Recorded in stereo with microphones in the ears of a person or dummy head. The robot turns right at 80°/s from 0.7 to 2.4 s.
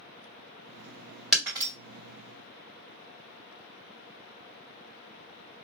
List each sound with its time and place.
1.3 s breaking glass: centre (ahead or behind), 2 m; by 1.7 s 25° right (ahead or behind), 2 m